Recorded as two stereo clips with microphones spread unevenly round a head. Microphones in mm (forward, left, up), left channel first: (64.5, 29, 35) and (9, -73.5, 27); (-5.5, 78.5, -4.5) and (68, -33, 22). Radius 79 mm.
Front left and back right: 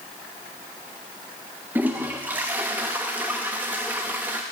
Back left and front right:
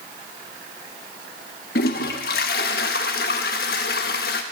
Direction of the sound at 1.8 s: 160° left.